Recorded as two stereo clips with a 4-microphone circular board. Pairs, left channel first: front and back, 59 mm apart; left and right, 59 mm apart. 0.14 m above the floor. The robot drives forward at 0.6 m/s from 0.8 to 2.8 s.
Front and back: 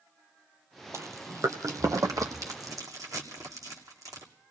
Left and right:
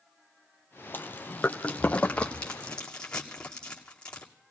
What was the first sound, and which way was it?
Chewing, 145° left.